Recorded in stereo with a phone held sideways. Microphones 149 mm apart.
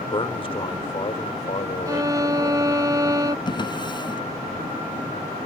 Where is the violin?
20° right (ahead or behind).